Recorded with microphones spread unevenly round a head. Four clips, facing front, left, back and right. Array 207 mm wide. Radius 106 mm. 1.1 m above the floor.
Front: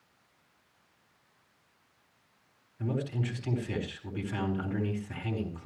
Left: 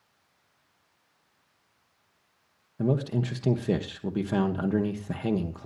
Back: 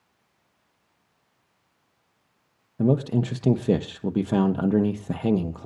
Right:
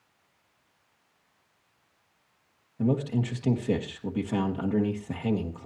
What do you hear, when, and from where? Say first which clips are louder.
2.8 s a man speaking: even, back 11 dB; 170° left, 1.4 m